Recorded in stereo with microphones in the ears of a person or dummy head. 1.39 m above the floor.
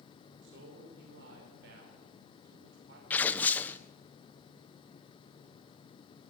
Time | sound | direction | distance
0.4 | a man speaking | 65° right (ahead or behind) | 5.5 m
3.1 | tearing paper | 5° left (ahead or behind) | 0.9 m